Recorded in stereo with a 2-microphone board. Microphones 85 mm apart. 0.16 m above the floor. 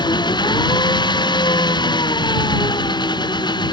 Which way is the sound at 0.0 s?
60° left (ahead or behind).